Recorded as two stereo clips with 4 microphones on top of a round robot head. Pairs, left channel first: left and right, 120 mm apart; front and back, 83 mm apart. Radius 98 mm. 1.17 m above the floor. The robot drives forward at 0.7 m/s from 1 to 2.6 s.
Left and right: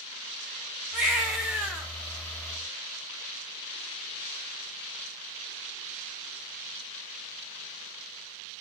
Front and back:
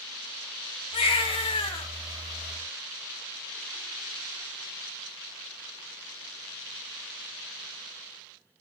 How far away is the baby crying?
About 2.5 m.